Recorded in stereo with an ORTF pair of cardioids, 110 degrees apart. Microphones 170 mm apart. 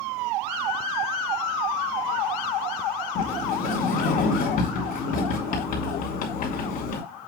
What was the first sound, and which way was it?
A sliding door, 55° left.